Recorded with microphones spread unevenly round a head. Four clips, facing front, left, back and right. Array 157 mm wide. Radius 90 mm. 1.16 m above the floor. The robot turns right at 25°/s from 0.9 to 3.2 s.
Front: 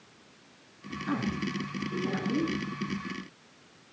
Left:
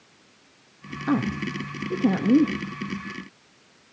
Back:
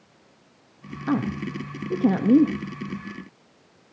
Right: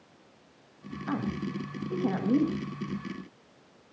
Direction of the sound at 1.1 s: 110° left.